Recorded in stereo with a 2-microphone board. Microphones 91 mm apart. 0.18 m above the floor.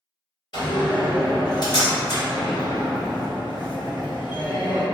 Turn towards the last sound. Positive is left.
turn(degrees=50)  # may be behind; listen again after turning